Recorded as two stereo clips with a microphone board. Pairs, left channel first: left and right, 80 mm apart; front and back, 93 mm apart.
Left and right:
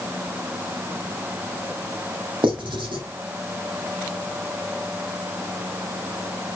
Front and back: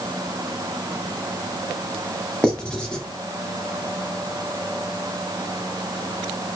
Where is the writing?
80° right, 2.0 m.